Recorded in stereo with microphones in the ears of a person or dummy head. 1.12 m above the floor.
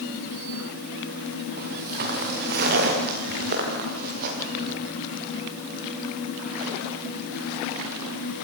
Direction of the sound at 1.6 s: 60° right (ahead or behind).